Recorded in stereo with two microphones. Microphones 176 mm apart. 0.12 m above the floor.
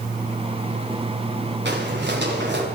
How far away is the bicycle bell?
I don't hear a bicycle bell.